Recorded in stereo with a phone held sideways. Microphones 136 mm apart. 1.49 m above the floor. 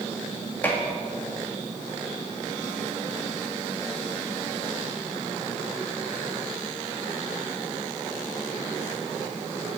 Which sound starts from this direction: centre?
Dishes clattering, at 0.6 s.